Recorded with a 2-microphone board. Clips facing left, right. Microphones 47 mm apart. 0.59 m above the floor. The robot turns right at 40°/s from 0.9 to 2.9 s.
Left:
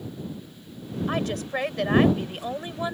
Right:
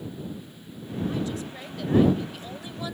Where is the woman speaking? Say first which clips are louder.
Left 6 dB; 75° left; by 3.0 s 150° left.